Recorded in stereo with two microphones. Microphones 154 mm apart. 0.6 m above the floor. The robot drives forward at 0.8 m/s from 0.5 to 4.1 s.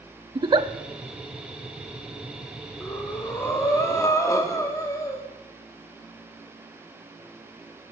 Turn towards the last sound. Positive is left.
turn(degrees=20)  # may be behind; listen again after turning